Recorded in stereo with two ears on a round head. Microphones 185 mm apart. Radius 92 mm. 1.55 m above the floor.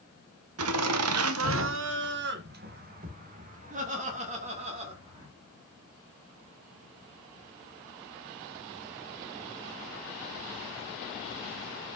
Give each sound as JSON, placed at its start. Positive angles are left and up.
{"t": 0.6, "sound": "laughter", "side_deg": -75, "distance_m": 1.0}